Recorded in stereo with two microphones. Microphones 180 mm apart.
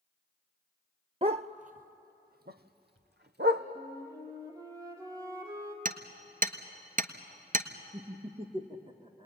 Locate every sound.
1.2 s a dog barking: 35° right (ahead or behind), 0.6 m; by 3.6 s 70° right (ahead or behind), 1.9 m
3.8 s a flute: 20° right (ahead or behind), 3.5 m
5.8 s hammering: 50° right (ahead or behind), 1.3 m
7.9 s laughter: 30° right (ahead or behind), 1.8 m